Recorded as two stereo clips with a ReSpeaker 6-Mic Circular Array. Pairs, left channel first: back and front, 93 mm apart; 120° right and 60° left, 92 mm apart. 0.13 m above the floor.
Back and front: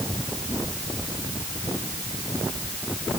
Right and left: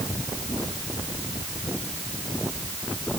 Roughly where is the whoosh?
I don't hear a whoosh.